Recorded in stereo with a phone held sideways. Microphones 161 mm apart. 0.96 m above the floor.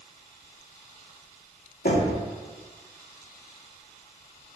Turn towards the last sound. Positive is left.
turn(degrees=75)  # may be behind; listen again after turning